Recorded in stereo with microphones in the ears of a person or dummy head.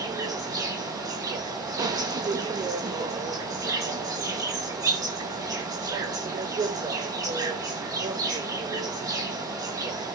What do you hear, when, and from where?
0.0 s an insect: 15° right (ahead or behind), 0.9 m